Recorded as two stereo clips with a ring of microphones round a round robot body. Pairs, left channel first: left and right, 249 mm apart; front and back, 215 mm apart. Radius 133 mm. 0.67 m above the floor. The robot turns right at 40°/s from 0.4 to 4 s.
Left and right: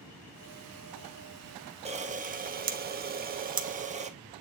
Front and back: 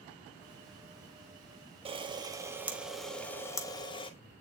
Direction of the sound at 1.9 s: 135° right.